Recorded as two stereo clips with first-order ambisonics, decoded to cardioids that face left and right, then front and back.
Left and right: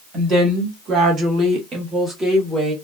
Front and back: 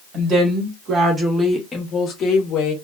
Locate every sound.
0.1 s a woman speaking: 140° right, 1.5 m; by 2.7 s 10° right, 1.1 m